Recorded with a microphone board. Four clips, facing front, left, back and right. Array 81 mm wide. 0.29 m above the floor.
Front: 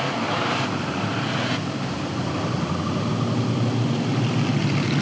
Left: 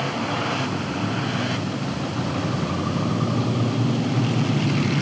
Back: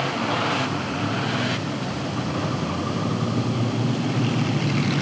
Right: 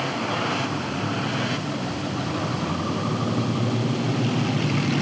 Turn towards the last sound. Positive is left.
No sound to turn to.